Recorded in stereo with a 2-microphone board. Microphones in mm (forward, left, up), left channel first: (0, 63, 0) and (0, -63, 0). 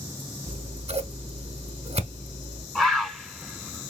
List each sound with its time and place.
0.5 s scissors: 55° right (ahead or behind), 0.8 m
2.8 s a bird: centre (ahead or behind), 0.9 m